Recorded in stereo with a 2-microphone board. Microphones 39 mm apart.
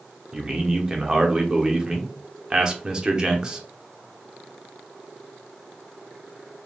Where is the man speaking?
25° right (ahead or behind), 0.7 m.